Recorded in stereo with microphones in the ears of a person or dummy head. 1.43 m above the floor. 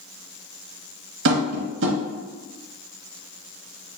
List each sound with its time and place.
1.2 s tapping: 60° right (ahead or behind), 0.9 m